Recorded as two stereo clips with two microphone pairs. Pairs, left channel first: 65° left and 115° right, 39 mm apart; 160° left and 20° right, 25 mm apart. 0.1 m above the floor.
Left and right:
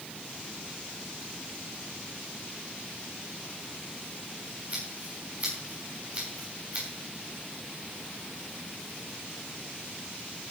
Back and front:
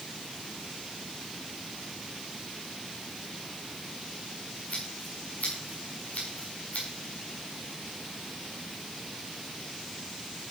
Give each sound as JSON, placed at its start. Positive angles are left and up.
{"t": 4.7, "sound": "scissors", "azimuth_deg": -170, "distance_m": 7.5}